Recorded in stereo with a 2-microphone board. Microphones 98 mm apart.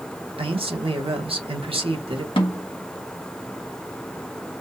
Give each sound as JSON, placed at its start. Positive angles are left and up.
{"t": 0.4, "sound": "a man speaking", "side_deg": -70, "distance_m": 1.4}
{"t": 2.4, "sound": "a snare drum", "side_deg": 65, "distance_m": 1.8}